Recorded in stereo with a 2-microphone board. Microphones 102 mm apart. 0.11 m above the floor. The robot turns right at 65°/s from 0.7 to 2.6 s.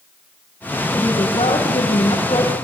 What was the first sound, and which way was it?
A woman speaking, 35° left.